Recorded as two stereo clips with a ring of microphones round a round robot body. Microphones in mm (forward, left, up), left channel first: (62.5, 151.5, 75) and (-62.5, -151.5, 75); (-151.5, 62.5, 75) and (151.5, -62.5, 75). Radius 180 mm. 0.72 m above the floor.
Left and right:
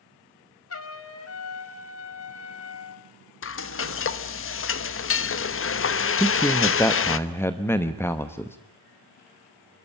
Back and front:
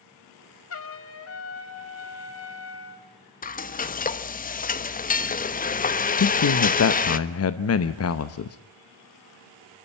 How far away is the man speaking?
About 0.9 m.